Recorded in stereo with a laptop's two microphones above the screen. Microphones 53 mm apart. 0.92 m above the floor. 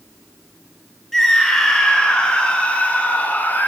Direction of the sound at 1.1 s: 5° left (ahead or behind).